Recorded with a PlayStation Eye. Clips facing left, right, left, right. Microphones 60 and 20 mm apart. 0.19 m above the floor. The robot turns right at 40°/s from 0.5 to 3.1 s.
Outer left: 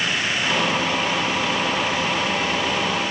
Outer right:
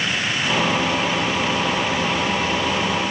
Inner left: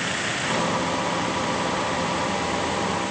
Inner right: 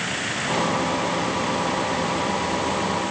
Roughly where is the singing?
No singing in this recording.